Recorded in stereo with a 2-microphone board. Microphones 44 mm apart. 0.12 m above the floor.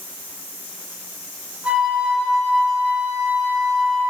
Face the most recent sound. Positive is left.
turn(degrees=-25)  # may be behind; listen again after turning